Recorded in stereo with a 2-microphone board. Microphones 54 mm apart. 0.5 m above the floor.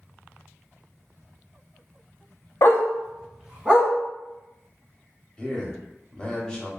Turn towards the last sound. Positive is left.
turn(degrees=15)  # may be behind; listen again after turning